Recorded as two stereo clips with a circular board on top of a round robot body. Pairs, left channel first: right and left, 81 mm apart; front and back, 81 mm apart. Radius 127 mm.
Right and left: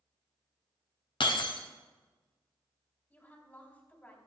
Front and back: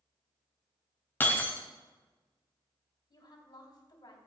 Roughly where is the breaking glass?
Ahead right.